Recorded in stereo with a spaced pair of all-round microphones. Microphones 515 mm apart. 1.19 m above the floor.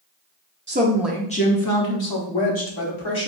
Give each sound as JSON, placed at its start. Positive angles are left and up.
{"t": 0.7, "sound": "a woman speaking", "side_deg": -25, "distance_m": 0.5}